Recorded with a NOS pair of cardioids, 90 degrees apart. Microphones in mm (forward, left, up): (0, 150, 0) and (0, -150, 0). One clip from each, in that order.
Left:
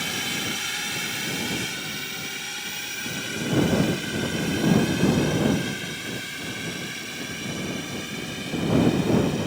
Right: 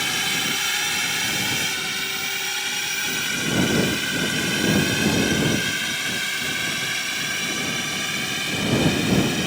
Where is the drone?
45° right; by 9.5 s 70° right.